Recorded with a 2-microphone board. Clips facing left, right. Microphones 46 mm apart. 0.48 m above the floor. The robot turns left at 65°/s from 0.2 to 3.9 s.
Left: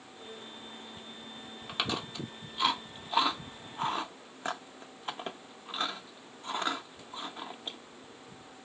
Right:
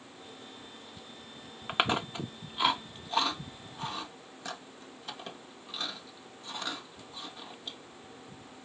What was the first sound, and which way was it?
Chewing, 35° right (ahead or behind).